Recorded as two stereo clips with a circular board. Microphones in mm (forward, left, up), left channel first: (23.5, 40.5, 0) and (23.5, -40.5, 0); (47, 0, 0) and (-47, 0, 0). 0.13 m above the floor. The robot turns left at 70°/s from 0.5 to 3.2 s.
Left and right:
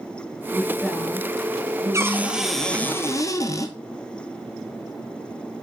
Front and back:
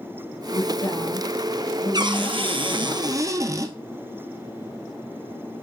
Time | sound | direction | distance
0.5 | a woman speaking | 20° left | 2 m
1.9 | a cupboard door | 140° right | 1.0 m